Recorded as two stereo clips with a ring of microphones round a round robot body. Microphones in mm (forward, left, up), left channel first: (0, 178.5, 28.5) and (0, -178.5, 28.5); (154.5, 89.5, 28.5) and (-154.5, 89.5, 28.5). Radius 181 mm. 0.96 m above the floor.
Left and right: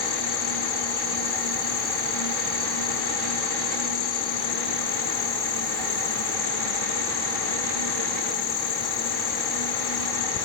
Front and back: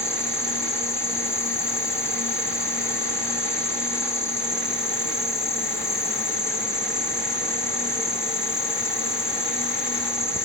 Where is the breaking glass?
No breaking glass in this recording.